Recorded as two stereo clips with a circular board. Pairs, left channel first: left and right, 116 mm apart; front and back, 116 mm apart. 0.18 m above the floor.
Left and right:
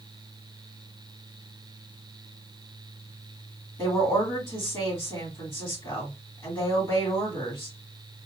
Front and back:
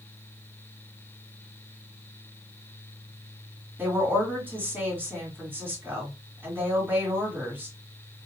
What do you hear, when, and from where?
3.8 s a woman speaking: 120° left, 1.7 m